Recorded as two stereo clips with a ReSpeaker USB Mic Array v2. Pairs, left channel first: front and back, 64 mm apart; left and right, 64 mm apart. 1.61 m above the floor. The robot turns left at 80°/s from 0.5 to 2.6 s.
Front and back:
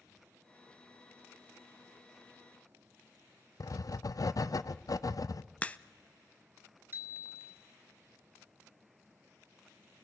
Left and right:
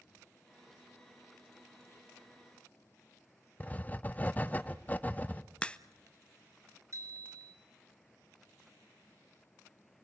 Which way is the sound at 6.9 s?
120° right.